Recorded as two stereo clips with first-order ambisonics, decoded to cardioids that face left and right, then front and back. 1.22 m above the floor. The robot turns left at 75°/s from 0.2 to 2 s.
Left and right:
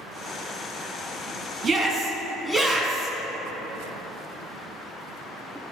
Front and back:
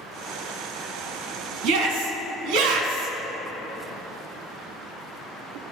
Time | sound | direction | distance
1.6 | a shout | 160° right | 1.5 m